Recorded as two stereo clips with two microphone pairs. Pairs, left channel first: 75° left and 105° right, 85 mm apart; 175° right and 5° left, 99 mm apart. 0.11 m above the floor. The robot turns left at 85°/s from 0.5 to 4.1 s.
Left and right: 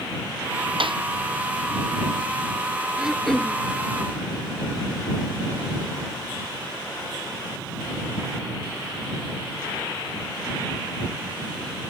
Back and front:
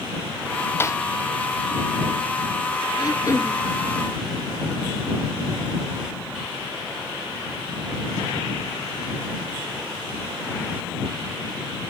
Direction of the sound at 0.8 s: 110° right.